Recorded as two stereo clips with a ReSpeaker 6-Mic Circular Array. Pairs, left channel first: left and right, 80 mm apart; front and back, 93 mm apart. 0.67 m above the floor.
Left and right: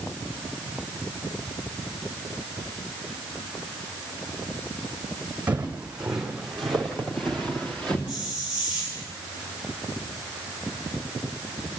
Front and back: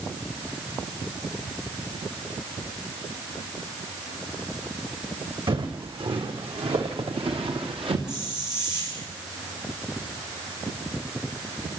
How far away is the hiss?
About 7 m.